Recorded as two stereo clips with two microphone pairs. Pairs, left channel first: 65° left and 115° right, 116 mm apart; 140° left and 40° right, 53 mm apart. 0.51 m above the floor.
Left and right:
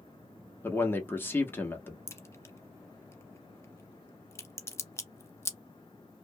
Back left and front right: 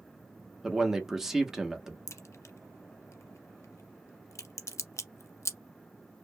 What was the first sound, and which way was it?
A man speaking, 30° left.